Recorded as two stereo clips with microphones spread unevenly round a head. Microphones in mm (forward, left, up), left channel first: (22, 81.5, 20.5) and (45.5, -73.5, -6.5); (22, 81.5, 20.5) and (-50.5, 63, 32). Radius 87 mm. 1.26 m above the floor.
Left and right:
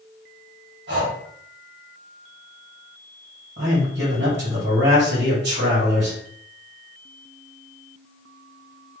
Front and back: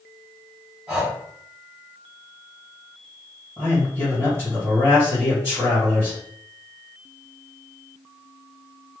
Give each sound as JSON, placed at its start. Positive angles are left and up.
{"t": 0.9, "sound": "breathing", "azimuth_deg": -95, "distance_m": 1.9}
{"t": 3.6, "sound": "a man speaking", "azimuth_deg": -95, "distance_m": 1.8}